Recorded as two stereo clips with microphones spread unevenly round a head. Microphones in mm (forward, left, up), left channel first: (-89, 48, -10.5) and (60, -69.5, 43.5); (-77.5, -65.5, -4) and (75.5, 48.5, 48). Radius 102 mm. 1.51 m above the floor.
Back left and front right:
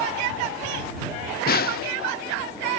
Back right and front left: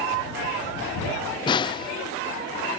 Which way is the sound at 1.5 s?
160° left.